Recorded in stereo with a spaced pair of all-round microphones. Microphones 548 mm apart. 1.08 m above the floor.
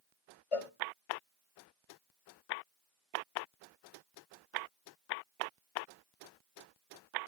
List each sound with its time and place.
0.5 s a cowbell: 75° left (ahead or behind), 1.0 m